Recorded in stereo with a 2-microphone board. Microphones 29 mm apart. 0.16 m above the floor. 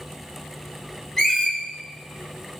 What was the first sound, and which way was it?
A squeak, 15° left (ahead or behind).